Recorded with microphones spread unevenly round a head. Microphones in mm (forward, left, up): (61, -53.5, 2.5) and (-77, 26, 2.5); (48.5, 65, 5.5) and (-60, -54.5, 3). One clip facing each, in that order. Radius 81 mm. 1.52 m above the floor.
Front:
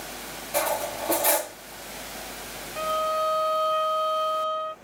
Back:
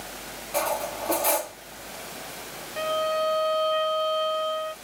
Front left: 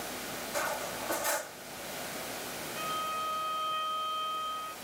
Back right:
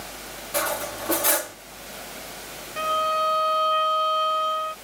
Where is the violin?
145° right.